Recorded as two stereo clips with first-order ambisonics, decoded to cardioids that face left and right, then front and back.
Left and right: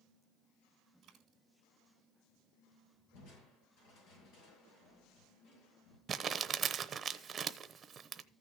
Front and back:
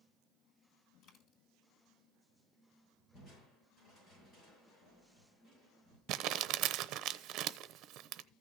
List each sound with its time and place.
1.0 s a dropped coin: 30° right, 2.5 m
3.1 s crushing: 65° left, 7.5 m
6.1 s crumpling: 155° right, 0.8 m